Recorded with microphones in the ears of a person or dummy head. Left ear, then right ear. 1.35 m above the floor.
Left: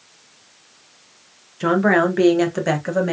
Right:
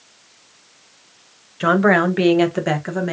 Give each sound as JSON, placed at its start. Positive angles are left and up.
{"t": 1.6, "sound": "a woman speaking", "side_deg": -45, "distance_m": 0.9}